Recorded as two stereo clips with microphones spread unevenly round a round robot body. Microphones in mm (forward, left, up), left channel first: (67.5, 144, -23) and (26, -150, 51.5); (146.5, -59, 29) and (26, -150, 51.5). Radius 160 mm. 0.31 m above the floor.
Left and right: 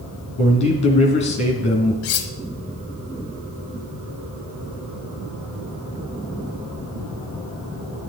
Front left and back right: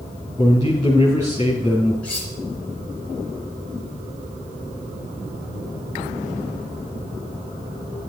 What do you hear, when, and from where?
0.4 s a man speaking: 145° left, 2.5 m
2.0 s cutlery clinking: 115° left, 1.0 m